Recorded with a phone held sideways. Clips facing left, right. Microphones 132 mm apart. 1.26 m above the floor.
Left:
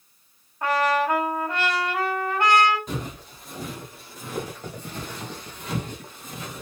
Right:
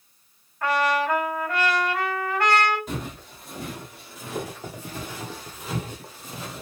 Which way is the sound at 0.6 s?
25° left (ahead or behind).